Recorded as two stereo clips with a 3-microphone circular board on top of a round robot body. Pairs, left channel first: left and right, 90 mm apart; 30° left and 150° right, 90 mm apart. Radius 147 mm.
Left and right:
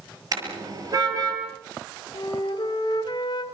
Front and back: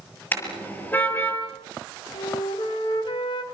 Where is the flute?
55° left, 2.5 m.